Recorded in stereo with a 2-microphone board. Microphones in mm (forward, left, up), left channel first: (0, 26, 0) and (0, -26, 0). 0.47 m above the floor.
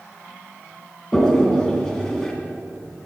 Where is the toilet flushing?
15° left (ahead or behind), 2.5 m.